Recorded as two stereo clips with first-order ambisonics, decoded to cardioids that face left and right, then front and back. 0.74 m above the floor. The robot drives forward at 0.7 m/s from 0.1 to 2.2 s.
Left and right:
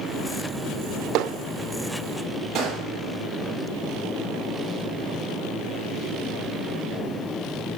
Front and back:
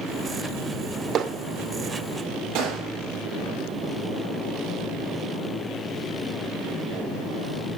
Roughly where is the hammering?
Behind right.